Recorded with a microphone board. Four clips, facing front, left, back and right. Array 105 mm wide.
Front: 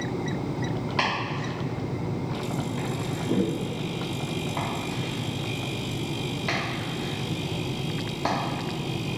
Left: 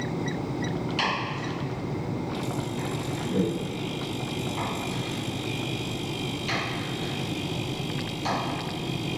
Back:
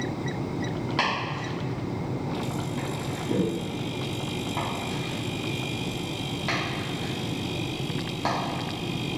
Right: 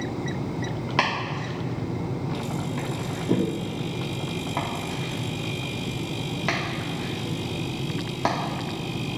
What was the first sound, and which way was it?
Chopping, 90° right.